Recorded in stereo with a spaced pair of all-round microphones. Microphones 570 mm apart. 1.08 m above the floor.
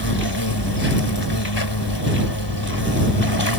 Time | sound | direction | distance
0.0 | an insect | 45° left (ahead or behind) | ?